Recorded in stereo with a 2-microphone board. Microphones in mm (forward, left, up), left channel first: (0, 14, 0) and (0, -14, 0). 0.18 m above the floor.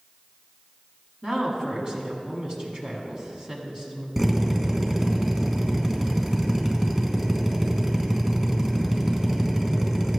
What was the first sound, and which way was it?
A woman speaking, 30° right (ahead or behind).